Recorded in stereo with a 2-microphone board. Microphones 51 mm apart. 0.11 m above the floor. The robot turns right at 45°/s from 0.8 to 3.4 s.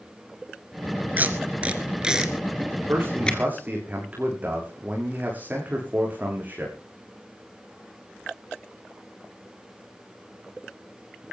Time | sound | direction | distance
1.2 | tape being pulled | 35° right (ahead or behind) | 1.9 m
2.9 | a man speaking | 55° right (ahead or behind) | 7 m